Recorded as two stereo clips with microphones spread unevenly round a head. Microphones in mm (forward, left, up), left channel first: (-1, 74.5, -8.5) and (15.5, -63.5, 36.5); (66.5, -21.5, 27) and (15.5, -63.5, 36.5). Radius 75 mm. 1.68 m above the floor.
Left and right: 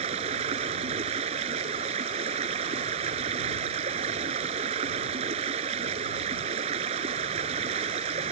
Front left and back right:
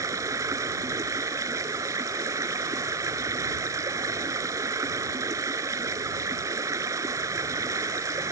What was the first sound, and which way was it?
Running water, 115° right.